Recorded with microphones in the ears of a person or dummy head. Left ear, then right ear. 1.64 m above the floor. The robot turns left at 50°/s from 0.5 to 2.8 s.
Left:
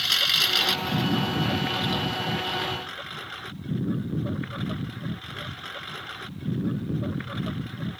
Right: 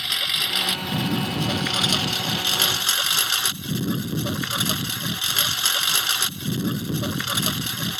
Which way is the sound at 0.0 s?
15° left.